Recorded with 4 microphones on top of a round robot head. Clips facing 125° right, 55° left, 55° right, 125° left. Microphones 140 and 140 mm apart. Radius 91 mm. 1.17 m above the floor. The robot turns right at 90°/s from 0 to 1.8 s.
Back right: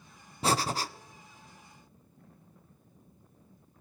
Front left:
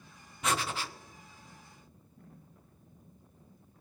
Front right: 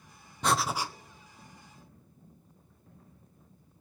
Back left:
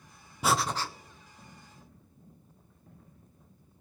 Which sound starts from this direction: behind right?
Breathing, at 0.4 s.